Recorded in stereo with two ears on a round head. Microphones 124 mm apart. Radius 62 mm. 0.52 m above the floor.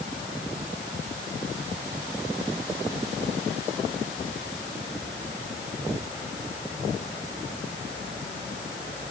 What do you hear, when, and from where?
Only background noise.